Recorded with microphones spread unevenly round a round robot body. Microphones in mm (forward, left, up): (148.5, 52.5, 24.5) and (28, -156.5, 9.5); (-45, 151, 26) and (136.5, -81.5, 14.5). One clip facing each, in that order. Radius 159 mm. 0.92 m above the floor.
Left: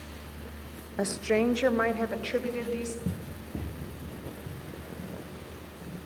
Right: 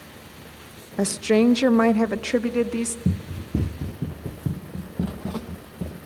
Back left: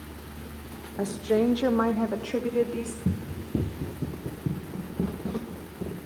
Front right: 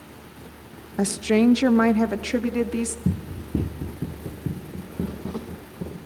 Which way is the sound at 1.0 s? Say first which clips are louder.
Right 8 dB, front right 5 dB; 80° right.